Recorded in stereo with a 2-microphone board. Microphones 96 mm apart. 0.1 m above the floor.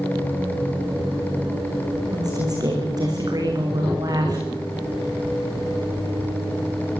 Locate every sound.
2.1 s a woman speaking: 40° right (ahead or behind), 10 m